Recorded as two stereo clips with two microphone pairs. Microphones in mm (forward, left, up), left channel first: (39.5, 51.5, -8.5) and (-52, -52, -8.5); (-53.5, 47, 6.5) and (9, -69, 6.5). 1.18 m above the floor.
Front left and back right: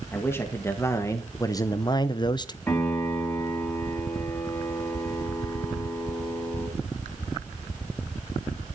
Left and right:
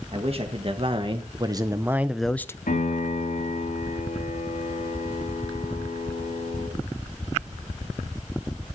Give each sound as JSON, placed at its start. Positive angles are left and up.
{"t": 0.1, "sound": "a man speaking", "azimuth_deg": -25, "distance_m": 1.8}
{"t": 2.7, "sound": "a piano", "azimuth_deg": 130, "distance_m": 5.0}